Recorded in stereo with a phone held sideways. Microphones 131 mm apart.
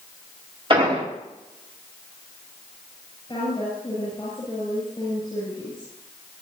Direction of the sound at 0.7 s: 40° right (ahead or behind).